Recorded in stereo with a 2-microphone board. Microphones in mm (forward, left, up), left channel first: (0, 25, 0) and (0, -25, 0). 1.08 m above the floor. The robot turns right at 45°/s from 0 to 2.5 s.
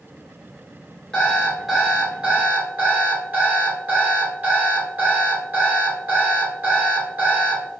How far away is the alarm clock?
About 2.0 m.